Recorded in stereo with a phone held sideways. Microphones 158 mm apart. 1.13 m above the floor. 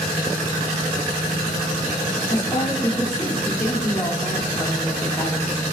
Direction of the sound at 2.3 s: 25° left (ahead or behind).